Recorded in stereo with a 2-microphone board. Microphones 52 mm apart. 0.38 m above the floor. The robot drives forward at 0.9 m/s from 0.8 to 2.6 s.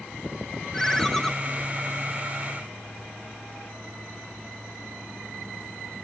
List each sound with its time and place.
0.7 s a ringtone: 10° left (ahead or behind), 1.0 m